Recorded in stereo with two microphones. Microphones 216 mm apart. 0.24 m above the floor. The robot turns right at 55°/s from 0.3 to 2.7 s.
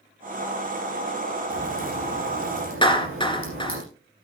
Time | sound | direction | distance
1.5 | a crack | 155° right | 7 m
2.8 | a clap | 25° left (ahead or behind) | 2.5 m